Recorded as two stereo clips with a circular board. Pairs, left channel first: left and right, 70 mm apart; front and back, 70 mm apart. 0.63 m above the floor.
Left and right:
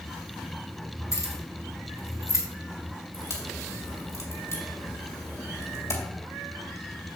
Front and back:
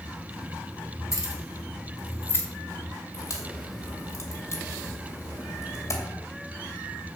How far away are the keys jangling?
About 3.5 m.